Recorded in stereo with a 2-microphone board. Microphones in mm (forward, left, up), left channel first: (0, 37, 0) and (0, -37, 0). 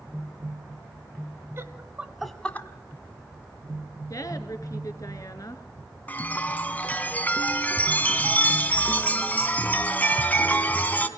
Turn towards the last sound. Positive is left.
turn(degrees=25)  # may be behind; listen again after turning